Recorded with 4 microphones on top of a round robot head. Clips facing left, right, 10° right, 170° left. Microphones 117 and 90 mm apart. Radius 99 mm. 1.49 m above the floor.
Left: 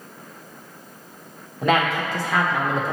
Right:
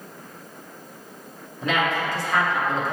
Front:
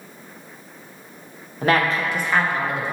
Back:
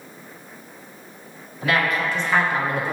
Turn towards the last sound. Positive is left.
turn(degrees=135)